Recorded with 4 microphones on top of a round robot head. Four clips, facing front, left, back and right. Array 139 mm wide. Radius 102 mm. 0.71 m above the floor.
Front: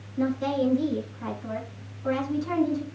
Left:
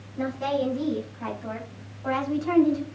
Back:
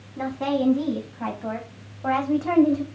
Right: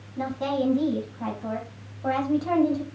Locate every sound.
0.2 s a woman speaking: 150° right, 5.5 m; by 2.9 s 145° right, 3 m